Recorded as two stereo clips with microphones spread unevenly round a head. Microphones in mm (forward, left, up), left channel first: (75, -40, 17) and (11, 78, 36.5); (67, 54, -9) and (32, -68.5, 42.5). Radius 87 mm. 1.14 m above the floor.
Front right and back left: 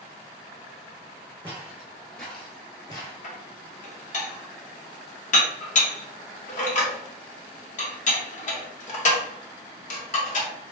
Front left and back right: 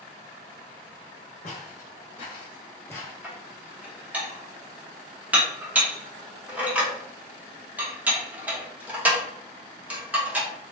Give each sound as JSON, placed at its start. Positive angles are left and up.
{"t": 1.4, "sound": "footsteps", "azimuth_deg": 90, "distance_m": 1.2}
{"t": 3.2, "sound": "dishes clattering", "azimuth_deg": -30, "distance_m": 0.8}